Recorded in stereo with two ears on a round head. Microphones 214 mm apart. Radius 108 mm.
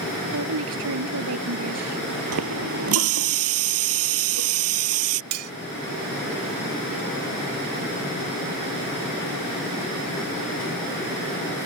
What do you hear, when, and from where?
0.3 s a woman speaking: 70° right (ahead or behind); by 2.0 s 80° right
2.3 s a running tap: 65° right (ahead or behind)
5.3 s cutlery clinking: 70° right (ahead or behind)